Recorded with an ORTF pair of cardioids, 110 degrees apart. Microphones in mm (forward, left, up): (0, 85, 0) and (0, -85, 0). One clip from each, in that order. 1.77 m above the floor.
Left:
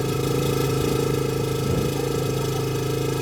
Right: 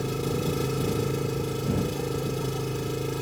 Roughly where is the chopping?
I don't hear chopping.